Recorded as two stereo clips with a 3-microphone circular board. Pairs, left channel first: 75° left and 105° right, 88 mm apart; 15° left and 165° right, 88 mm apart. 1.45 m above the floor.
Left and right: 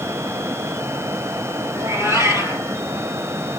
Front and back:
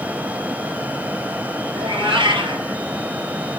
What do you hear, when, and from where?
1.8 s a cat meowing: 155° right, 3 m